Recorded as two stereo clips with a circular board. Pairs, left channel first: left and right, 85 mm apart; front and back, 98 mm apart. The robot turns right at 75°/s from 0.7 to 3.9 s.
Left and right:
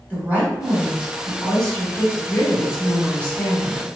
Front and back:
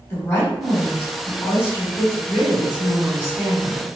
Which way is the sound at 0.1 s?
45° right.